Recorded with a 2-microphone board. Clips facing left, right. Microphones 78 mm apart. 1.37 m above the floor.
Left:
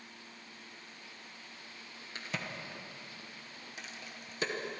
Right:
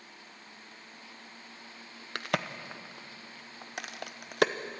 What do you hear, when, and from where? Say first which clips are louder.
2.1 s a crack: right 8 dB; 70° right (ahead or behind), 0.8 m